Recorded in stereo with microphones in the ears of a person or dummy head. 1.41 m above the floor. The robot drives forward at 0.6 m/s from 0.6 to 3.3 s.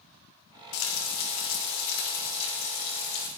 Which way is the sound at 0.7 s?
85° left.